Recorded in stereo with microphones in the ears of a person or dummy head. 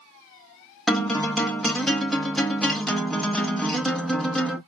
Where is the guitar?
Centre (ahead or behind), 0.9 m.